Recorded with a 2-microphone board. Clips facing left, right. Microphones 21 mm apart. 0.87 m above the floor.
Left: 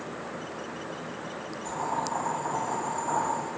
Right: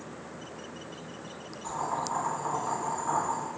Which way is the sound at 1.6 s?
55° right (ahead or behind).